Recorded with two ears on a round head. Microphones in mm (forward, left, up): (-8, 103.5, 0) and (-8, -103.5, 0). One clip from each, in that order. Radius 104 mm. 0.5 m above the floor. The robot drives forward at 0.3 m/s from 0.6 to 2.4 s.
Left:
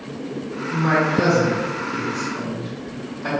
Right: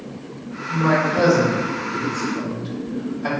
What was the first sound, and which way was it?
A man speaking, 40° right (ahead or behind).